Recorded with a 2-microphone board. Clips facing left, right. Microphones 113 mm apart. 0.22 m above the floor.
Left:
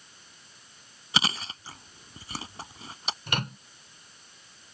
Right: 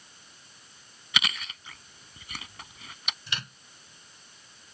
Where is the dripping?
No dripping in this recording.